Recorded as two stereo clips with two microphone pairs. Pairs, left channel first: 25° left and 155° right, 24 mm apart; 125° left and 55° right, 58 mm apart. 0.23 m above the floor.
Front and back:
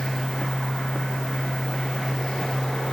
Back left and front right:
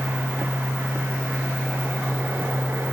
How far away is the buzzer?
No buzzer in this recording.